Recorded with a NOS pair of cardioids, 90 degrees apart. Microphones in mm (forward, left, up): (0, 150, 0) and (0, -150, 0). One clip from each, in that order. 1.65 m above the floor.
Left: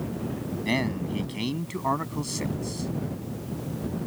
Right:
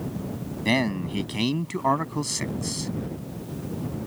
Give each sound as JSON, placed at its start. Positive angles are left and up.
{"t": 0.7, "sound": "a man speaking", "azimuth_deg": -55}